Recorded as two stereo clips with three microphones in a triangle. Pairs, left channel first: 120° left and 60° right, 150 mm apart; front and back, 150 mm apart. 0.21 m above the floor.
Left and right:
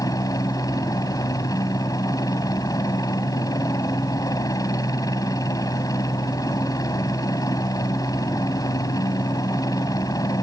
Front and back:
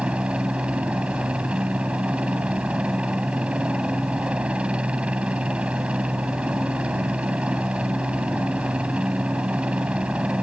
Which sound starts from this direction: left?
A helicopter, at 0.0 s.